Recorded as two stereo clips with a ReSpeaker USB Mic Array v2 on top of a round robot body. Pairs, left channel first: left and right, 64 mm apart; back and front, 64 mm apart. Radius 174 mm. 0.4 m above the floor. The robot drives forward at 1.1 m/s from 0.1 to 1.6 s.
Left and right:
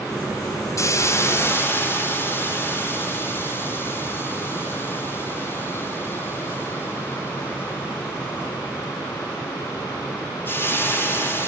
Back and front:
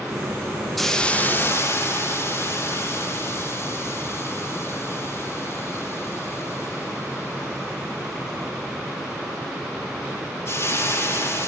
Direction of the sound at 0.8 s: 95° left.